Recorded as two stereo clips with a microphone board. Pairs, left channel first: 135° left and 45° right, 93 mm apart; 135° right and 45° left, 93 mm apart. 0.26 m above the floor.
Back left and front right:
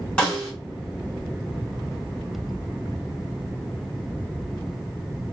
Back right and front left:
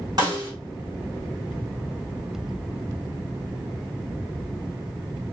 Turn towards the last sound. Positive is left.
turn(degrees=60)